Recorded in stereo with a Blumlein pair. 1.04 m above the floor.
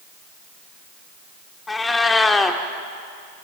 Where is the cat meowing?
10° left, 1.6 m.